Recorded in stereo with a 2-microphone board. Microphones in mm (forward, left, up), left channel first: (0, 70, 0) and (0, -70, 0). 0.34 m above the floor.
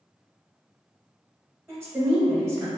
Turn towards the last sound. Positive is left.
turn(degrees=-20)  # may be behind; listen again after turning